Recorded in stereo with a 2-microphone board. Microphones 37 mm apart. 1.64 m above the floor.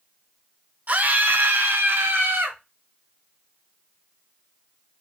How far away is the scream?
About 1.0 m.